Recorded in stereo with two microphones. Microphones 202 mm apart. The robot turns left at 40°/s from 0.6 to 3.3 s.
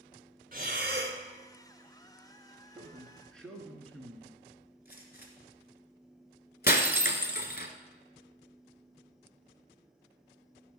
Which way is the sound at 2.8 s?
15° right (ahead or behind).